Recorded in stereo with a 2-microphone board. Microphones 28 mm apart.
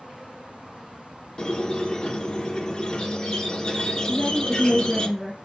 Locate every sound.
1.4 s a squeak: 30° left (ahead or behind), 1.2 m
4.1 s a woman speaking: 5° left (ahead or behind), 2.5 m